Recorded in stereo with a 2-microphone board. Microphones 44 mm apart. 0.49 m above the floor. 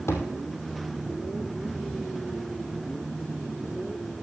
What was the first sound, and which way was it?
A thud, 80° left.